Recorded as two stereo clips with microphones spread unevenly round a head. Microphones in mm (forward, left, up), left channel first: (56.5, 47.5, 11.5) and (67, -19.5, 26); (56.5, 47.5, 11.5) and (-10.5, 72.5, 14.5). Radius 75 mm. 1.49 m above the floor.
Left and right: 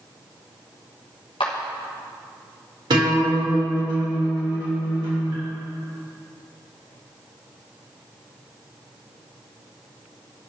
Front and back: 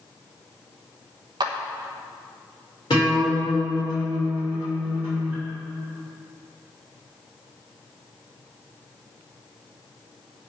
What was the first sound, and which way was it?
A clap, 145° left.